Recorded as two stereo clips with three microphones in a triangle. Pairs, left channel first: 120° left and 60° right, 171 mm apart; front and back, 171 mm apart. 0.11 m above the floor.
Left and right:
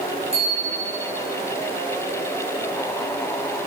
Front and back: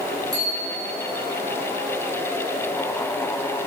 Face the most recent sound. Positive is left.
turn(degrees=-115)